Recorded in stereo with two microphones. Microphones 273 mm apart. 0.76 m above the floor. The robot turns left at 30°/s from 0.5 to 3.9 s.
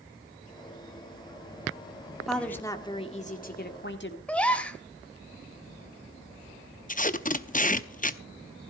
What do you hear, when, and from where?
2.3 s a woman speaking: straight behind, 1.9 m; by 4.2 s 130° left, 1.9 m
4.3 s a gasp: 5° left (ahead or behind), 1.5 m
6.9 s tape being pulled: 30° left (ahead or behind), 0.7 m